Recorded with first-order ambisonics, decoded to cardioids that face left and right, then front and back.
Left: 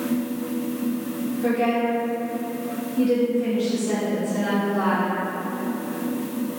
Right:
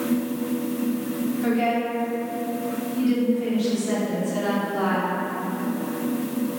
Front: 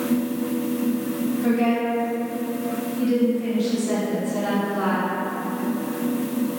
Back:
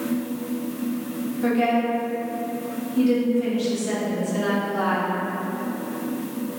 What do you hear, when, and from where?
1.4 s a woman speaking: 160° right, 1.4 m